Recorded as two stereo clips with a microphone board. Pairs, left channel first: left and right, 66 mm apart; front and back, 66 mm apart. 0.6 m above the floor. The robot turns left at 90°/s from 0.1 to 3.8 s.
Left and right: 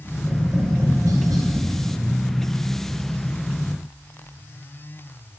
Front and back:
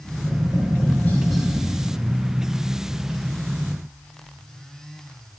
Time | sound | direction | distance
0.1 | tapping | 25° left | 3.5 m